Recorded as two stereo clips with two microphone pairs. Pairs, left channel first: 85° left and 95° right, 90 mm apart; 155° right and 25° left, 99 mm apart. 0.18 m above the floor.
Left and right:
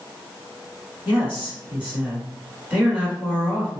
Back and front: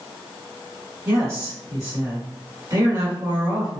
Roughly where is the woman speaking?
Ahead right.